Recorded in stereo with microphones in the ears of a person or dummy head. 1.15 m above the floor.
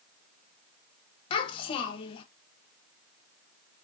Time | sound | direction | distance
1.3 | a child speaking | 30° left (ahead or behind) | 0.9 m